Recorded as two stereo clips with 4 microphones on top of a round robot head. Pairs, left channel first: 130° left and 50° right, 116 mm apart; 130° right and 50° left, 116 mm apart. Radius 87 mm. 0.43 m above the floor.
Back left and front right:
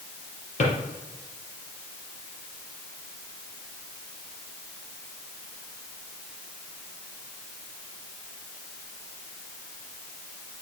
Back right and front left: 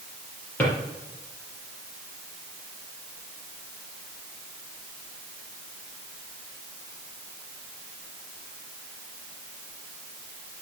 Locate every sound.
0.6 s a drawer: 150° left, 4 m